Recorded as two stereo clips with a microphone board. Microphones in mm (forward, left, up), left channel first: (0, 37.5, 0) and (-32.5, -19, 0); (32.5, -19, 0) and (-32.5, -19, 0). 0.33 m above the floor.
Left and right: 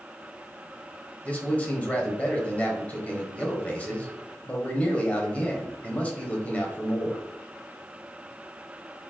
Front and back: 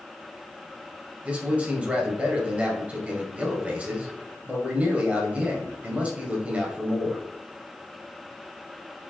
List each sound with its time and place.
1.2 s a man speaking: 120° left, 1.4 m